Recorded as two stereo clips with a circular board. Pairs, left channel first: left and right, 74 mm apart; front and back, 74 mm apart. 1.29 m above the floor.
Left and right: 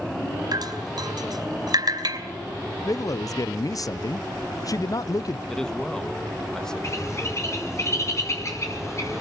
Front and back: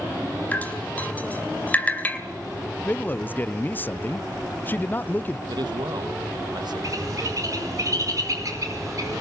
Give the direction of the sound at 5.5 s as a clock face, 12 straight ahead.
6 o'clock.